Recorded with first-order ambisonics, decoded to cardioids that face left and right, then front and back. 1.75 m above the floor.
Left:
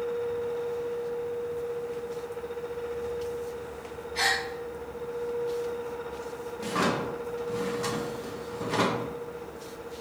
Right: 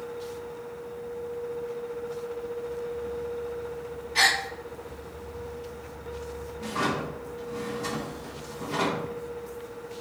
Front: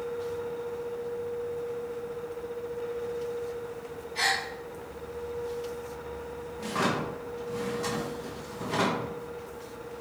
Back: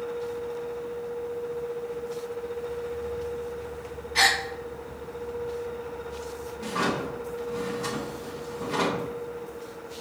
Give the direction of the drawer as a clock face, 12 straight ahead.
10 o'clock.